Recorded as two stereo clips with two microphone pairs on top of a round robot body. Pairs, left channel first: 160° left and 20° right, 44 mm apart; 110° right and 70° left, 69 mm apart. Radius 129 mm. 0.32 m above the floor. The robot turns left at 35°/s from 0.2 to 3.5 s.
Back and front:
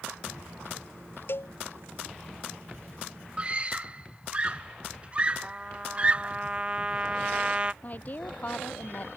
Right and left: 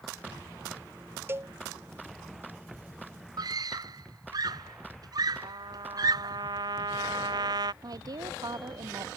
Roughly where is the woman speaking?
Left.